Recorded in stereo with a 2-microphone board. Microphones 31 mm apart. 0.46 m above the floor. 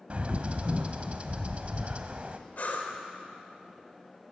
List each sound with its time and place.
0.1 s a bird: 40° right (ahead or behind), 0.7 m
2.6 s breathing: 50° left (ahead or behind), 1.3 m